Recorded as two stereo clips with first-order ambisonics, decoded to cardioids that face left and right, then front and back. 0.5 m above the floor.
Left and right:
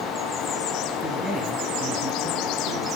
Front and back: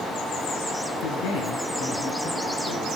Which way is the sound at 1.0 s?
20° right.